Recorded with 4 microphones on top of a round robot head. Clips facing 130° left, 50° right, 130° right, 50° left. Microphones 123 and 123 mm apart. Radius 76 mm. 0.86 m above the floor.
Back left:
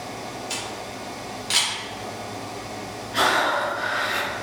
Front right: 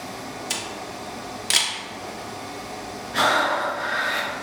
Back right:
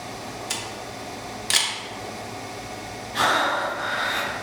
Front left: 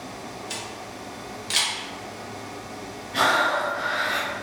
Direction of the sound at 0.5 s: 90° right.